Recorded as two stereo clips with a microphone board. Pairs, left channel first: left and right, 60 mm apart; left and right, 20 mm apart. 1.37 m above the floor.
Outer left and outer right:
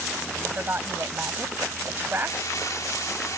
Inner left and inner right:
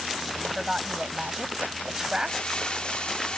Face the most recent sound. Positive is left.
turn(degrees=70)  # may be behind; listen again after turning